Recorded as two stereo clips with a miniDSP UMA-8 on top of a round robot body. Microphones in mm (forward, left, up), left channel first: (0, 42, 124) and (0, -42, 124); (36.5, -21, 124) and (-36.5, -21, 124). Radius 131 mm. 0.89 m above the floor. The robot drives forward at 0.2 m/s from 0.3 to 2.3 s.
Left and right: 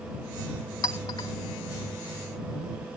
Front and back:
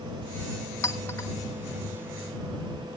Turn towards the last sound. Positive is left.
turn(degrees=65)